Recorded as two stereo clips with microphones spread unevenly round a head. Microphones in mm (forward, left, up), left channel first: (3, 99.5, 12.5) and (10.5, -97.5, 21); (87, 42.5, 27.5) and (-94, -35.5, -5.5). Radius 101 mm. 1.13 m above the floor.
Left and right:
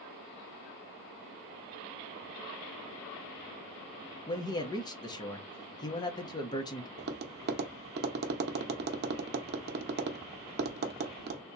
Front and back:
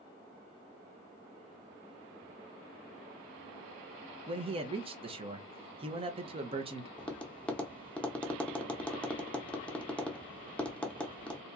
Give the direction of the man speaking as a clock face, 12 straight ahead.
7 o'clock.